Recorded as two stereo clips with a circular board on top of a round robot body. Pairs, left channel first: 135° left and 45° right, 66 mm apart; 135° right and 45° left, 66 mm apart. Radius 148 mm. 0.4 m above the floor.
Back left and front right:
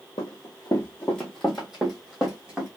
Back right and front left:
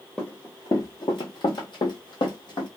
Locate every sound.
0.2 s running footsteps: 140° left, 0.6 m; by 2.7 s 120° right, 1.5 m